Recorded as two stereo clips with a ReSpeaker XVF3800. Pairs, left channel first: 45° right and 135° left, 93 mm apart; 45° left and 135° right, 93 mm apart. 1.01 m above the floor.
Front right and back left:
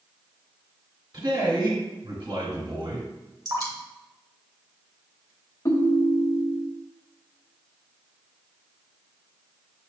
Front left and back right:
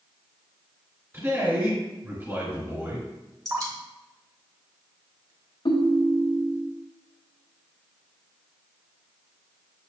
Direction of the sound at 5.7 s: 10° left.